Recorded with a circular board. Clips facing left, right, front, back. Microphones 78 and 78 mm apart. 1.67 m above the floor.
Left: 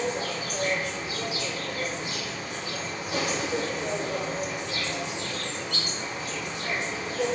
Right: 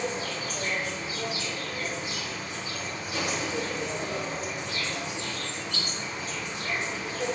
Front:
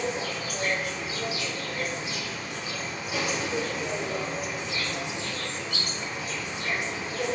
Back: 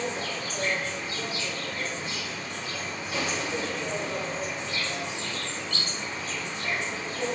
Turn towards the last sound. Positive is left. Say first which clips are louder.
# left 2 dB, front 1 dB
turn(degrees=80)